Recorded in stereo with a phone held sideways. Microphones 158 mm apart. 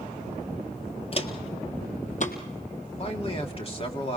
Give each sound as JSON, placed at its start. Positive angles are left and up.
{"t": 1.1, "sound": "footsteps", "side_deg": 40, "distance_m": 1.3}
{"t": 3.0, "sound": "a man speaking", "side_deg": 40, "distance_m": 2.0}